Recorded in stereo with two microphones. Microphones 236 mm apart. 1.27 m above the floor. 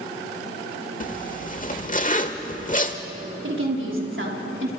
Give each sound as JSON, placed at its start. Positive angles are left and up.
{"t": 1.0, "sound": "a zipper", "side_deg": 35, "distance_m": 1.3}
{"t": 3.4, "sound": "a woman speaking", "side_deg": -60, "distance_m": 3.5}